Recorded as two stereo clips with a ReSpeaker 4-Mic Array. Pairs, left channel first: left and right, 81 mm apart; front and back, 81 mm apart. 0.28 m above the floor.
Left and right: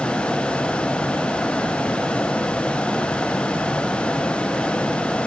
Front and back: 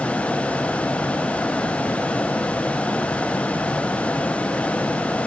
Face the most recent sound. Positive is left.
No sound to turn to.